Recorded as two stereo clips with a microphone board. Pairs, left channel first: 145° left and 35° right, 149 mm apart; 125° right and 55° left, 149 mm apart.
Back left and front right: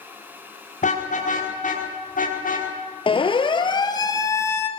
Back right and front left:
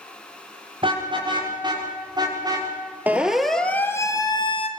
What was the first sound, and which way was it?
A car horn, 110° left.